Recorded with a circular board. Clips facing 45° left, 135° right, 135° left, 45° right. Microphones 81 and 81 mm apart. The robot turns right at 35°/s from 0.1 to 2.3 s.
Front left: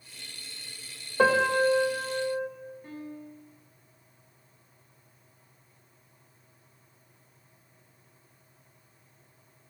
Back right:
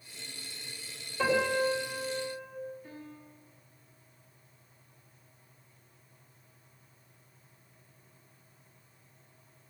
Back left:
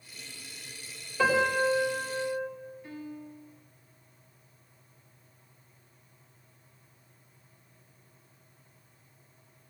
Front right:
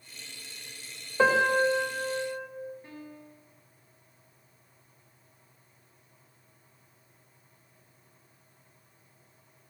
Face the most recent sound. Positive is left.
turn(degrees=10)